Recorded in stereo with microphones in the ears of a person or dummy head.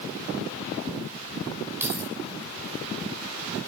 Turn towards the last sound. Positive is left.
turn(degrees=-15)  # may be behind; listen again after turning